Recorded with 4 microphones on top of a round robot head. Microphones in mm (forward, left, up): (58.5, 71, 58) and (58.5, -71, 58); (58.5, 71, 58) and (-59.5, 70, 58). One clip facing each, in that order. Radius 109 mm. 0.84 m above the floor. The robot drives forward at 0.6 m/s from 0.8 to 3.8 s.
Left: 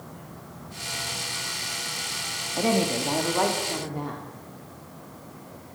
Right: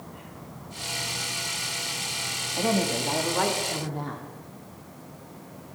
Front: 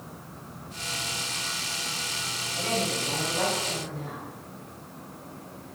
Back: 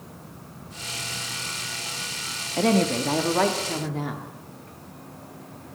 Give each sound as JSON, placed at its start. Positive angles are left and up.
{"t": 2.6, "sound": "a woman speaking", "azimuth_deg": 165, "distance_m": 1.3}